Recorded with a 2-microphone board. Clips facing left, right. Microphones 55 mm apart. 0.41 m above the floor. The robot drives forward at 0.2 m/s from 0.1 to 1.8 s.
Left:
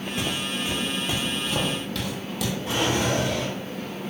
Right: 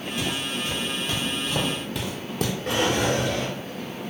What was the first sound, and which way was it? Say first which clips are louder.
Footsteps: even; 30° left (ahead or behind).